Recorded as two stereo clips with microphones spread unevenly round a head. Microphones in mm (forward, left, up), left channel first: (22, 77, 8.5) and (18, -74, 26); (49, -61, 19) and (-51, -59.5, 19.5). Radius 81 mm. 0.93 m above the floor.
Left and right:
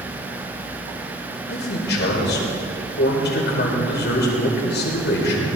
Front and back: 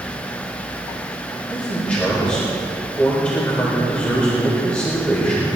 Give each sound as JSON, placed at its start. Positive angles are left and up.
{"t": 1.5, "sound": "a man speaking", "azimuth_deg": 80, "distance_m": 3.5}